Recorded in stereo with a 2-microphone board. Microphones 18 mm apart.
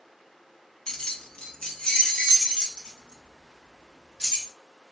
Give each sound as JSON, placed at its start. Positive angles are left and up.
{"t": 0.9, "sound": "keys jangling", "side_deg": 45, "distance_m": 0.5}